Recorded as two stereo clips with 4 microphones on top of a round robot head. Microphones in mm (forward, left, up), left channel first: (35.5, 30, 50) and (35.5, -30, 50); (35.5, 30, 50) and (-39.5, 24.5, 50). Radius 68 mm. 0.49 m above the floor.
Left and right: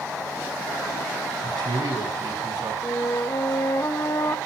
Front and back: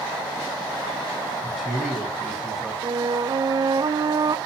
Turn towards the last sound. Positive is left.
turn(degrees=145)